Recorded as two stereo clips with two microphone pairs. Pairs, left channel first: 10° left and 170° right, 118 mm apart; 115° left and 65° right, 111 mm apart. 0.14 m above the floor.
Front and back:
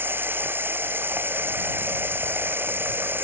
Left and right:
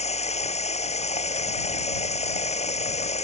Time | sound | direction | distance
0.0 | running water | 120° left | ?